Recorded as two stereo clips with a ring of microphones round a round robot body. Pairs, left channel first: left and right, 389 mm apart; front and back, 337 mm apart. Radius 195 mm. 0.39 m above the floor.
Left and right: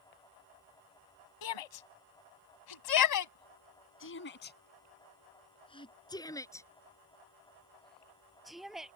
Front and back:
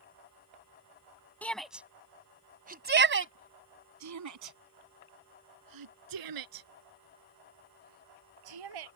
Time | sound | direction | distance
1.4 | a shout | 85° left | ?